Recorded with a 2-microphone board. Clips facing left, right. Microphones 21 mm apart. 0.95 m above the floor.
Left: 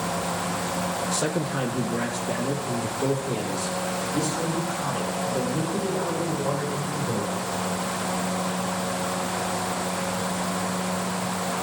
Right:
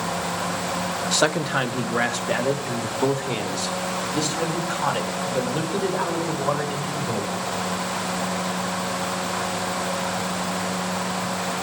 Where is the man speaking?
60° right (ahead or behind), 0.8 m; by 7.3 s 75° right (ahead or behind), 4 m.